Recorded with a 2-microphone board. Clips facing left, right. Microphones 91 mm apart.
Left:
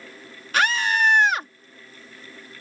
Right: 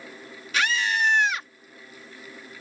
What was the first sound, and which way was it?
A scream, 50° left (ahead or behind).